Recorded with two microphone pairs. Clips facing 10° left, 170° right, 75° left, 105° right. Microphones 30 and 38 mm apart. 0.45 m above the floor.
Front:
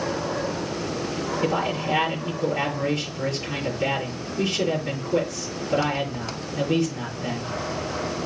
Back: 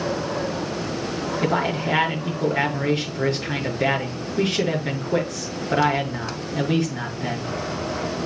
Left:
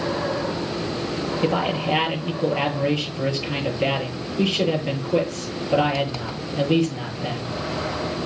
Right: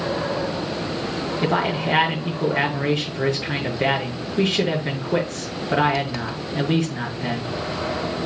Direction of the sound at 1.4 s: 130° right.